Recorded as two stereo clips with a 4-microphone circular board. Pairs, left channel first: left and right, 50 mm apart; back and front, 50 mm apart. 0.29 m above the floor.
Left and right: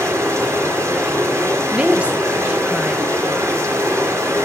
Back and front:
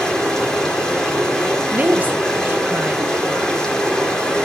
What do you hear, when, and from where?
0.0 s running water: 100° right, 4.5 m
1.7 s a woman speaking: 35° right, 1.4 m